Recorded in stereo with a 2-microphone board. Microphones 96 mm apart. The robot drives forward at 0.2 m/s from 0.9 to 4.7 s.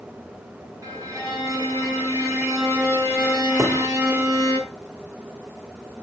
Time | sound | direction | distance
0.8 | a violin | 35° right (ahead or behind) | 6 m
3.6 | a thud | 30° right (ahead or behind) | 1.2 m